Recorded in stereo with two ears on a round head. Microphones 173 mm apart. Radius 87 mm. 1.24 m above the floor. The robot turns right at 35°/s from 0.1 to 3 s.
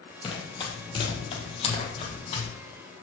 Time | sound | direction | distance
0.2 | running footsteps | 30° left (ahead or behind) | 2 m